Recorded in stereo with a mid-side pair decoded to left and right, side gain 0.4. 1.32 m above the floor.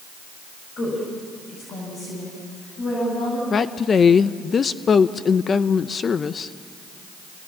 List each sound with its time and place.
0.8 s a woman speaking: 65° left, 8 m; by 3.4 s 60° left, 10 m
3.5 s a woman speaking: 50° left, 0.7 m